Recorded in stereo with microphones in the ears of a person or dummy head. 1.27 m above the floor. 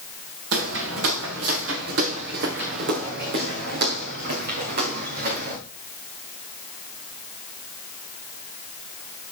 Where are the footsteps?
70° right (ahead or behind), 5 m; by 5.6 s 50° right (ahead or behind), 6 m.